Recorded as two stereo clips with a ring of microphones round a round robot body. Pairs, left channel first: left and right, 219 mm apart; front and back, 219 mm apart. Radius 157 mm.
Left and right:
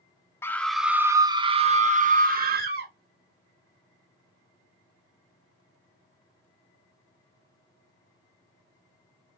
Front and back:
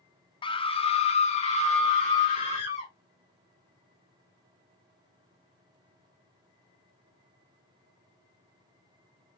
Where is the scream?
25° left, 0.9 m; by 2.9 s 60° right, 1.5 m.